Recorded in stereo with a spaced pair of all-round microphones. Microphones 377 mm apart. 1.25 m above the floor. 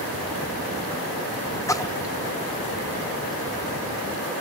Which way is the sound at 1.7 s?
10° left (ahead or behind).